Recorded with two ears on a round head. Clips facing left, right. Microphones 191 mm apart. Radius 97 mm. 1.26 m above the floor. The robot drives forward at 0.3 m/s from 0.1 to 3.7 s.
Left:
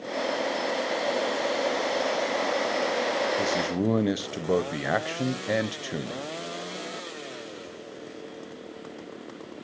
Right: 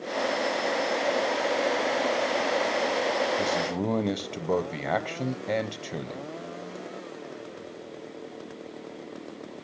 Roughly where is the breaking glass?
I don't hear breaking glass.